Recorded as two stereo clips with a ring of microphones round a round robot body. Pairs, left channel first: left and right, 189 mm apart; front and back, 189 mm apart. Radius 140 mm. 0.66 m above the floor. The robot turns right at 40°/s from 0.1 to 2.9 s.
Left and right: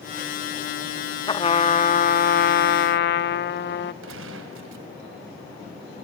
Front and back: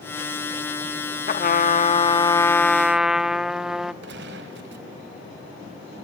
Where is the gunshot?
130° right, 1.6 m.